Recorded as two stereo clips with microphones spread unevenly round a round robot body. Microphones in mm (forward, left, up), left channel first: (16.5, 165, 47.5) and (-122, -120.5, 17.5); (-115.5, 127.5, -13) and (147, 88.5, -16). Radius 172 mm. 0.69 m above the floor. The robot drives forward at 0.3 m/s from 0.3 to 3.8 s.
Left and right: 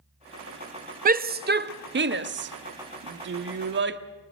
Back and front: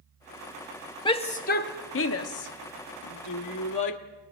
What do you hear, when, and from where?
1.1 s a shout: 125° right, 0.5 m; by 4.0 s 170° right, 1.1 m